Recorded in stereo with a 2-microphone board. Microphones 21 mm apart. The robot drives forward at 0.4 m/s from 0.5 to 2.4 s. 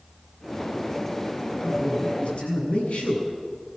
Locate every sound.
1.6 s a man speaking: 70° left (ahead or behind), 7.5 m